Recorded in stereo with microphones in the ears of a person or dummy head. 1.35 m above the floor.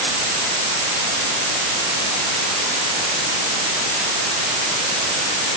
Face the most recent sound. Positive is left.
No sound to turn to.